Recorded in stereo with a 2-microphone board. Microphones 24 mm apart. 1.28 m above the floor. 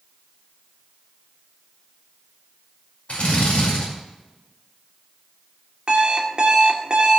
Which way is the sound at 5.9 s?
40° right (ahead or behind).